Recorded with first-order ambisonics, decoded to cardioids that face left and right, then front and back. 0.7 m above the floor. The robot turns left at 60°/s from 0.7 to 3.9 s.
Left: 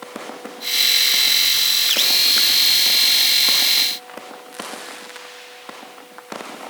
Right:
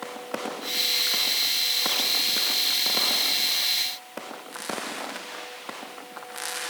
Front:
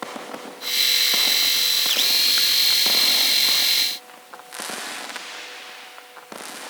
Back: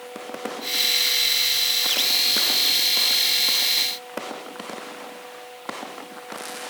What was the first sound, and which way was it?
Only background noise.